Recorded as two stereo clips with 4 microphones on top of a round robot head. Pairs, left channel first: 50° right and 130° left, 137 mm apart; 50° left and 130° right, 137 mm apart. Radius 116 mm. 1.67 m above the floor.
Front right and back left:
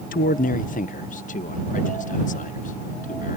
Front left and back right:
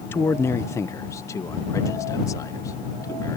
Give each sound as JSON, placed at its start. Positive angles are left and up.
{"t": 0.1, "sound": "a man speaking", "azimuth_deg": -25}